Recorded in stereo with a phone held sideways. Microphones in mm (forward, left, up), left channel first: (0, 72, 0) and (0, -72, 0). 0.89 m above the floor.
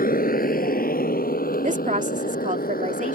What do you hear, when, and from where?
0.0 s a motorcycle: 80° left; by 3.1 s 85° left
1.6 s a woman speaking: 60° right (ahead or behind)